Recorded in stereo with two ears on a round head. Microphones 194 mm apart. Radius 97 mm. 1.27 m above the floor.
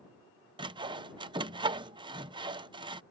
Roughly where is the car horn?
No car horn in this recording.